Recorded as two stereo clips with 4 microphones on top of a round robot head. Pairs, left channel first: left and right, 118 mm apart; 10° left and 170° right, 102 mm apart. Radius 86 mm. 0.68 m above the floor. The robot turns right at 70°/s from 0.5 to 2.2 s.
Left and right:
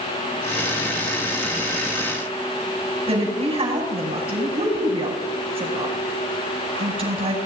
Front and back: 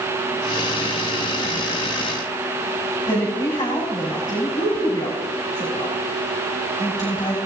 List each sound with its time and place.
3.1 s a woman speaking: 55° right, 5.5 m